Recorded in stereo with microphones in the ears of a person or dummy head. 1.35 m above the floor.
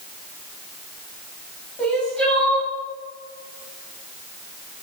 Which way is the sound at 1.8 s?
10° left (ahead or behind).